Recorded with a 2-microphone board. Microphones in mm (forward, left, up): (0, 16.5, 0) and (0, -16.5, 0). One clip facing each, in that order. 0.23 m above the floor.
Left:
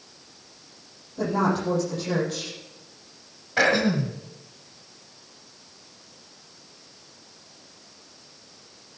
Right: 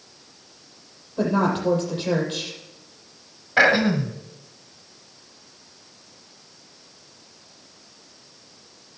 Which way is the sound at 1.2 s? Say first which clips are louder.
Right 2 dB; 40° right (ahead or behind).